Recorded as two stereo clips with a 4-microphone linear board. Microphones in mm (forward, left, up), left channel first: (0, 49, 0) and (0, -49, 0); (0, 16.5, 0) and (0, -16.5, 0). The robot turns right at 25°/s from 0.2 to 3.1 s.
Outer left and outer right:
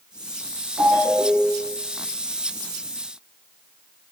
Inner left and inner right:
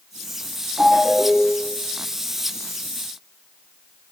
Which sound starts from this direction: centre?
A ringtone, at 0.8 s.